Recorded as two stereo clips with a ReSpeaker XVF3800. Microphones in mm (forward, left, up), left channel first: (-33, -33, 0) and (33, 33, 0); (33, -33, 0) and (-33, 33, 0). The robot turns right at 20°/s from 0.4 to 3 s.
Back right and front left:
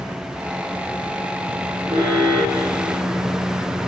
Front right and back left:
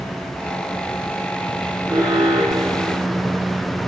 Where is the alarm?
75° left, 6.5 m; by 3.4 s 100° left, 6.5 m.